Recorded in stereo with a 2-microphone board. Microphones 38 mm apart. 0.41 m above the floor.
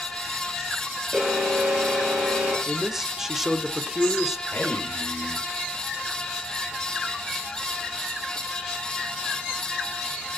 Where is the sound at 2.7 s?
10° right (ahead or behind), 1.3 m.